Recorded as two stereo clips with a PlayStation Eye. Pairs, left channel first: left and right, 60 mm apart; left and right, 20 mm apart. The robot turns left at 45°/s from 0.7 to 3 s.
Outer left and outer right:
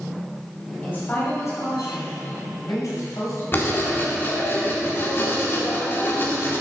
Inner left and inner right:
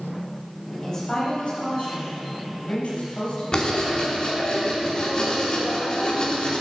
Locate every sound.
0.8 s a woman speaking: 155° left, 4 m; by 3.4 s 55° left, 4 m
3.5 s writing: 40° left (ahead or behind), 1.9 m